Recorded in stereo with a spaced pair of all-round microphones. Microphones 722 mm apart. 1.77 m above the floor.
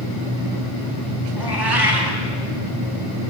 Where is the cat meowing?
30° right (ahead or behind), 3.5 m.